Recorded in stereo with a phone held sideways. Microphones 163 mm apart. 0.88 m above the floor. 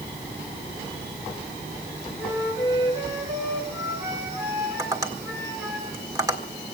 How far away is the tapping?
About 1.7 m.